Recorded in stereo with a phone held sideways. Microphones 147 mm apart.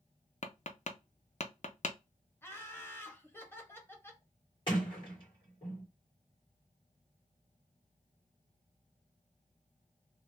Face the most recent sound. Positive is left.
turn(degrees=35)  # may be behind; listen again after turning